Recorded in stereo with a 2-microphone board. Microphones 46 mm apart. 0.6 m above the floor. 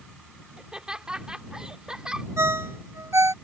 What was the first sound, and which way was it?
Laughter, 15° right (ahead or behind).